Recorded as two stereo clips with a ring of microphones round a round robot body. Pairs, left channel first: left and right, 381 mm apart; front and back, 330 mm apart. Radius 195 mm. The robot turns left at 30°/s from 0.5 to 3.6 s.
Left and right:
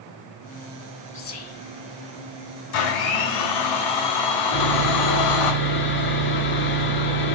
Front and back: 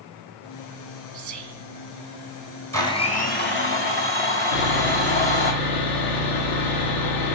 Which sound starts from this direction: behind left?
Whispering, at 1.1 s.